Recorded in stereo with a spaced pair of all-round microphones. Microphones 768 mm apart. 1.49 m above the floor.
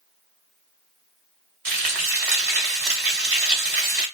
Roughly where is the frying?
Right.